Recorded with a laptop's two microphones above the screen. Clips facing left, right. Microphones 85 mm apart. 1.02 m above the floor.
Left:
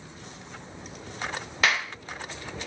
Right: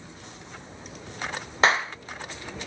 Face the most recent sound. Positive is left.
turn(degrees=-30)  # may be behind; listen again after turning